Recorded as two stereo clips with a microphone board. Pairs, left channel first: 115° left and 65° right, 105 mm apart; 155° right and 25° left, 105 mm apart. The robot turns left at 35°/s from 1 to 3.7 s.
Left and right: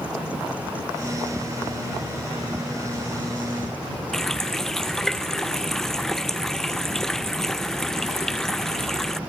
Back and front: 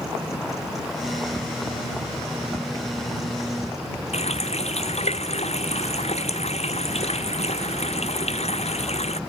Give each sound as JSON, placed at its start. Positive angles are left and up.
{"t": 4.1, "sound": "a running tap", "azimuth_deg": -160}